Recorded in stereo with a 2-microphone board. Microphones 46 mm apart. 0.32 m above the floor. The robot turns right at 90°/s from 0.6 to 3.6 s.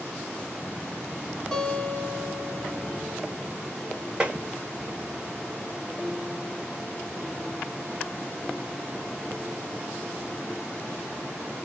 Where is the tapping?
25° right (ahead or behind), 0.9 m.